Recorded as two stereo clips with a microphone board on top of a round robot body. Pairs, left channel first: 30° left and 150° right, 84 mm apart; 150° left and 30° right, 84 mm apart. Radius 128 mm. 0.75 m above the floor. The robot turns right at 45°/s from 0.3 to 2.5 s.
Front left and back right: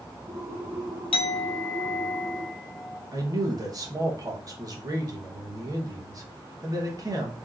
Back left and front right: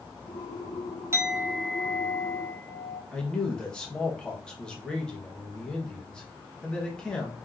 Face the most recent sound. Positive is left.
turn(degrees=-135)